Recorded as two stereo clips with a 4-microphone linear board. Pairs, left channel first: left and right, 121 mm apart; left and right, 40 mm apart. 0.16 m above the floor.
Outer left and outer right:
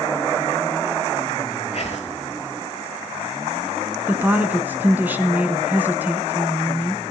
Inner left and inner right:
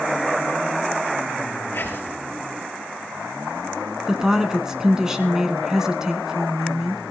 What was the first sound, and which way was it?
Whispering, 50° left (ahead or behind).